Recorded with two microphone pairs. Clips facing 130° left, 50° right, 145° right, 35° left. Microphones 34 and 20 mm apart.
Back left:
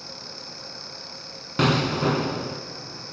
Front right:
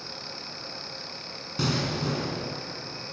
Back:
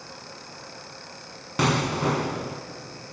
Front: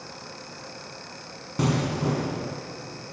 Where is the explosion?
175° left, 1.3 m.